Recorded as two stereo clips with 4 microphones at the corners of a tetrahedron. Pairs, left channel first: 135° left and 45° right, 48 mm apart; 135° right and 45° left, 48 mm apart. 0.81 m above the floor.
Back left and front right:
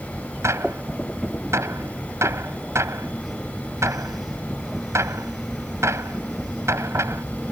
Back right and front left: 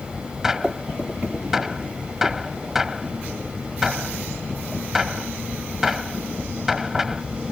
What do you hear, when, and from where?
0.4 s a gunshot: 35° right